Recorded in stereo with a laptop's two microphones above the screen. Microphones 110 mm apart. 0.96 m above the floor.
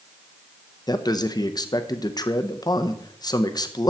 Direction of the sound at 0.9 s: 35° left (ahead or behind).